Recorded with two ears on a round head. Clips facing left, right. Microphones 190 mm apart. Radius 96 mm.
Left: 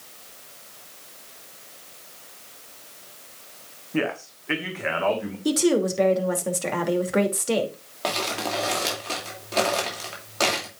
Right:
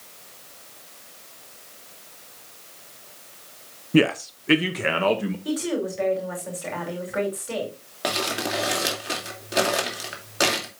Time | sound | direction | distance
3.9 | a man speaking | 45° right (ahead or behind) | 0.7 m
5.5 | a woman speaking | 60° left (ahead or behind) | 2.5 m
8.0 | crumpling | 15° right (ahead or behind) | 2.5 m